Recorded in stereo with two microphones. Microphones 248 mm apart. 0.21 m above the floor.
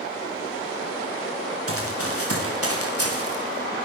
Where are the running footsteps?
70° right (ahead or behind), 9.5 m; by 3.9 s 85° right, 9.5 m.